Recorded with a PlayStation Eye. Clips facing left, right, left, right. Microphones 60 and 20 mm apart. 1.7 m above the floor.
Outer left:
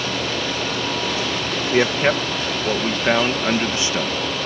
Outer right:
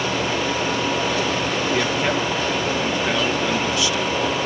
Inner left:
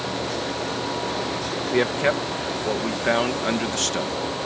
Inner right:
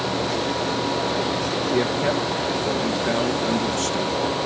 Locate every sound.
1.7 s a man speaking: 30° left (ahead or behind)